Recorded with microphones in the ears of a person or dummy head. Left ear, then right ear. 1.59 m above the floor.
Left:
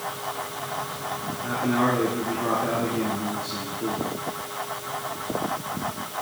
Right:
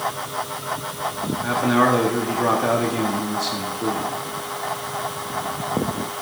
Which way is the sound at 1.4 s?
80° right.